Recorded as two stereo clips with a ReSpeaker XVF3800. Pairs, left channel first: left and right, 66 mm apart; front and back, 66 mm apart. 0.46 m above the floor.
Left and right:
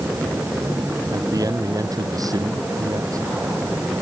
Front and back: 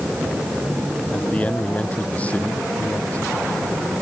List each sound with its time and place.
1.1 s a man speaking: 70° right